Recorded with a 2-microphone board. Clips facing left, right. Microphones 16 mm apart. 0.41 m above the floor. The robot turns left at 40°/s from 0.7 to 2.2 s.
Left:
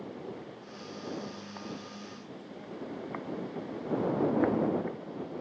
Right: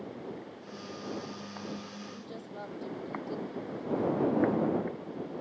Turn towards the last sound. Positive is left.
turn(degrees=-55)  # may be behind; listen again after turning